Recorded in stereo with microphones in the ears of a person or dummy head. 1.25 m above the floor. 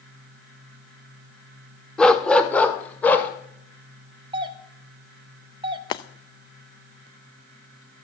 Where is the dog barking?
5° left (ahead or behind), 1.1 m; by 3.3 s 15° left (ahead or behind), 2 m.